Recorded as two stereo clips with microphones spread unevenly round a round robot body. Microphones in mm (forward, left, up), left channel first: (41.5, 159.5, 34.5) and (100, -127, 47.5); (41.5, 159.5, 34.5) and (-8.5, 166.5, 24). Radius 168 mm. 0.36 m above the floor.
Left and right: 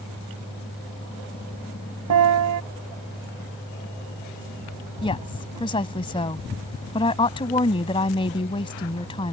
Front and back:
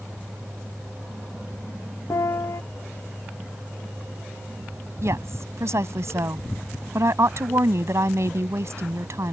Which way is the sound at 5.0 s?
175° left.